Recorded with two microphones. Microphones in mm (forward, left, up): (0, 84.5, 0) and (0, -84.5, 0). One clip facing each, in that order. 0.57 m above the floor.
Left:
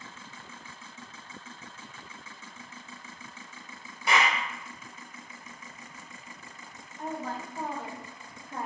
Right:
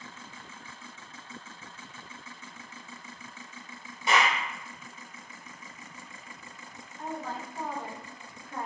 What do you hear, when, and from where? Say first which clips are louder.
4.1 s a clap: right 1 dB; 20° right (ahead or behind), 1.3 m
7.0 s a woman speaking: left 1 dB; 15° left (ahead or behind), 0.9 m